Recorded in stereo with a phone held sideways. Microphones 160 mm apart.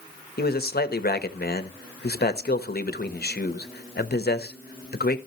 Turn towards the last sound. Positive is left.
turn(degrees=75)  # may be behind; listen again after turning